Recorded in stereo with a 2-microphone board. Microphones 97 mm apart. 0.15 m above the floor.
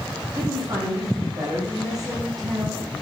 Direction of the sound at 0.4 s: 45° right (ahead or behind).